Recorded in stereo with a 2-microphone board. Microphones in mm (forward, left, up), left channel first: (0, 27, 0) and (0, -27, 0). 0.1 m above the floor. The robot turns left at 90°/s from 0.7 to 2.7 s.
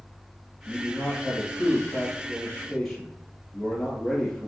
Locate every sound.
0.7 s a man speaking: straight behind, 1.7 m; by 4.5 s straight ahead, 1.7 m